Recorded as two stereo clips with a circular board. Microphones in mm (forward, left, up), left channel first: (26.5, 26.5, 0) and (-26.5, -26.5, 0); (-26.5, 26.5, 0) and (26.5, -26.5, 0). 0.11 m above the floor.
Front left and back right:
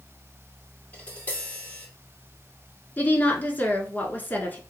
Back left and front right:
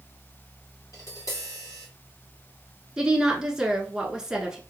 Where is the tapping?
110° left, 3 m.